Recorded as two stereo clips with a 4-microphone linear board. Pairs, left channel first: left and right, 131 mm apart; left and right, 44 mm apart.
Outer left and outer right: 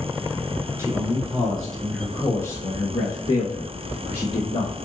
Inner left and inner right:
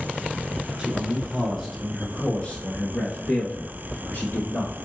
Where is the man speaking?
20° right (ahead or behind), 1.1 m; by 4.7 s 50° left (ahead or behind), 1.9 m.